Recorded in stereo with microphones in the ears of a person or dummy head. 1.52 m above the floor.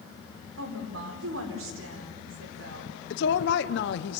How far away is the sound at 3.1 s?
About 1.0 m.